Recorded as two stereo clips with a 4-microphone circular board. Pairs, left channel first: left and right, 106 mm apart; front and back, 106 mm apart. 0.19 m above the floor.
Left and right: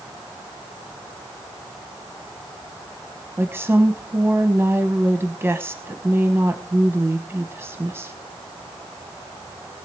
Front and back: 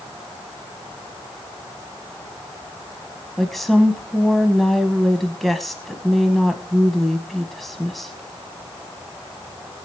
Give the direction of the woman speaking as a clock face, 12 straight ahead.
3 o'clock.